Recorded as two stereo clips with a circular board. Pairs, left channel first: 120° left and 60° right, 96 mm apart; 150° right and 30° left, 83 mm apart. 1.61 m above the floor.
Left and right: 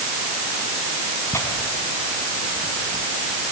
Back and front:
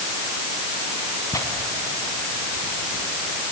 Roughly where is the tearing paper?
Behind.